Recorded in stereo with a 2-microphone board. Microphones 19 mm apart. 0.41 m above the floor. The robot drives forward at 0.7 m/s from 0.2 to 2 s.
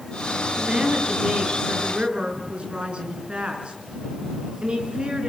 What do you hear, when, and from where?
0.6 s a woman speaking: 55° right (ahead or behind), 6.5 m; by 5.3 s 60° right (ahead or behind), 6 m